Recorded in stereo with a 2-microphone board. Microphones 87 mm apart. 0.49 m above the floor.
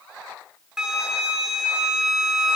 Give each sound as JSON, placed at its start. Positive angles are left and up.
{"t": 0.8, "sound": "a flute", "side_deg": -10, "distance_m": 2.5}